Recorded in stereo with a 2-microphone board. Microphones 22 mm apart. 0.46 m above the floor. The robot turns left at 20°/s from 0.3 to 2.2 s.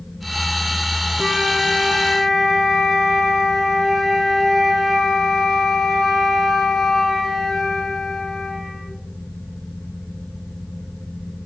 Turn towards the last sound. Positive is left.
turn(degrees=15)  # may be behind; listen again after turning